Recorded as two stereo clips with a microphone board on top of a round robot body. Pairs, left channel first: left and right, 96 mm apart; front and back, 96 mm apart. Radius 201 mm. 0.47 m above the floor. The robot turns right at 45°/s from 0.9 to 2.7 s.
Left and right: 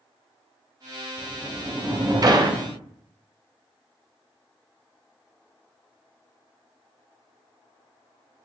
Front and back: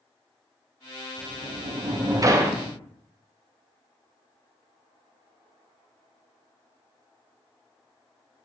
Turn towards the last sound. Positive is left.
turn(degrees=-110)